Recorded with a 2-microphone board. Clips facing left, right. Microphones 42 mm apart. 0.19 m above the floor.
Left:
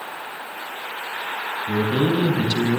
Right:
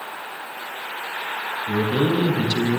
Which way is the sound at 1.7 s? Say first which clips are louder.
Even; centre (ahead or behind).